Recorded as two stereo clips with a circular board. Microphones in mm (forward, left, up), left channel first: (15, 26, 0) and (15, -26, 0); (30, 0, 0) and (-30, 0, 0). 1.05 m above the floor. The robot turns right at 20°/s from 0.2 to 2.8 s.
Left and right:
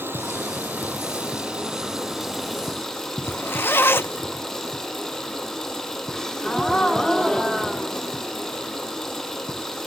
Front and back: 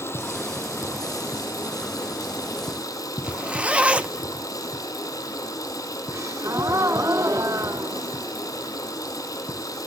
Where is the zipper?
115° left, 0.7 m.